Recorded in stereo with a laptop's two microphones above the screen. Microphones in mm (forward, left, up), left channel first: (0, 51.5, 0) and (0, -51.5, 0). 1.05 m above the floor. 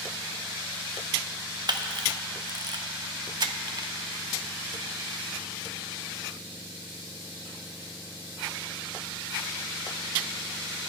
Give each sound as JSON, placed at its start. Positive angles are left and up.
{"t": 1.7, "sound": "a camera shutter", "side_deg": -50, "distance_m": 0.6}